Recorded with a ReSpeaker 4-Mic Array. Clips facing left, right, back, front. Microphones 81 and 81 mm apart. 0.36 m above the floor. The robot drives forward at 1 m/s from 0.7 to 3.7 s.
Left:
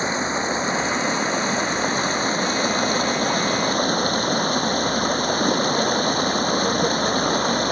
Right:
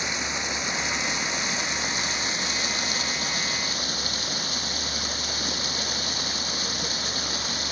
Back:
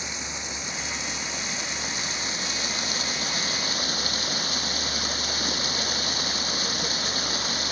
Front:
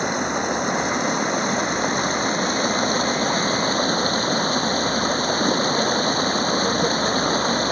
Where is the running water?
35° left; by 7.7 s 50° left.